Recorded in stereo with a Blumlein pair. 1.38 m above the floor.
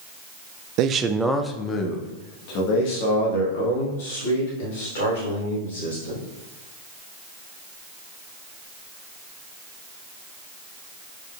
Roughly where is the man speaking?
Ahead right.